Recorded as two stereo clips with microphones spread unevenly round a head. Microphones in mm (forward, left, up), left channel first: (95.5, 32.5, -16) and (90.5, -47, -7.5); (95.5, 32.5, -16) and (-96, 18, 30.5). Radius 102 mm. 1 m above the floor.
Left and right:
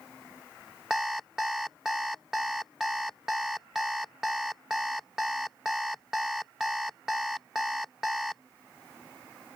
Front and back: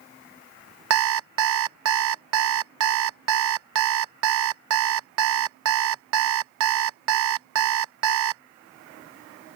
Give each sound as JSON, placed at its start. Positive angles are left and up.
{"t": 0.9, "sound": "an alarm clock", "azimuth_deg": 180}